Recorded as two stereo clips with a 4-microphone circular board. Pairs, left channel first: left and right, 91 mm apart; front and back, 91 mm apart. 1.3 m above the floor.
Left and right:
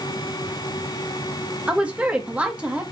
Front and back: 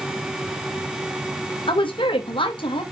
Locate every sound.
1.7 s a woman speaking: 15° right, 1.5 m